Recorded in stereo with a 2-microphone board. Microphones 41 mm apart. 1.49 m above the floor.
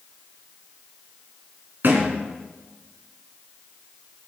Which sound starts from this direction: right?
A thud, at 1.8 s.